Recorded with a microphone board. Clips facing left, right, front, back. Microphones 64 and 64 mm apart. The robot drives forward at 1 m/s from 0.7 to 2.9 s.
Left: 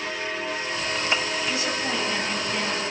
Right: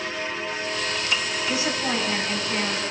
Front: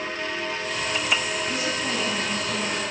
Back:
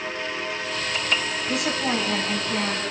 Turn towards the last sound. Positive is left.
turn(degrees=-160)